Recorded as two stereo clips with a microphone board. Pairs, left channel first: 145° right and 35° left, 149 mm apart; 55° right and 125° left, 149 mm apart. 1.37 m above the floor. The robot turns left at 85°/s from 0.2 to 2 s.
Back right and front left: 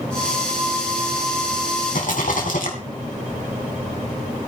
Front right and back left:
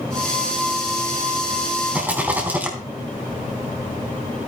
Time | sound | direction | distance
1.9 | a rattle | 150° right | 3.5 m